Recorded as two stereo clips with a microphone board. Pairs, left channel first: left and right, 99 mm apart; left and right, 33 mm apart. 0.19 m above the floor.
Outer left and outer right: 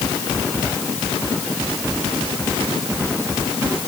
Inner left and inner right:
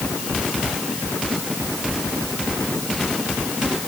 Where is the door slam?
No door slam in this recording.